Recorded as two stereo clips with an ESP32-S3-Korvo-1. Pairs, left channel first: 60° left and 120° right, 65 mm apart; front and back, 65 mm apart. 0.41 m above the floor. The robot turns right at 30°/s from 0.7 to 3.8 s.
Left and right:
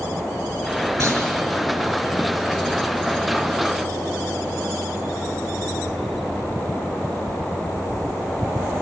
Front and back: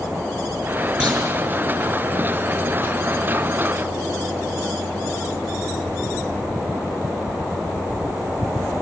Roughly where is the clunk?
Right.